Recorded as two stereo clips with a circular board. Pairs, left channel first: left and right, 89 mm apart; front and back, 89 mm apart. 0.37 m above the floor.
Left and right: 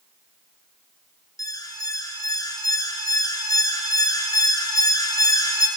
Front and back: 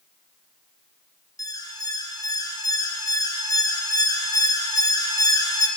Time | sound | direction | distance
1.4 | an alarm | 45° left | 4 m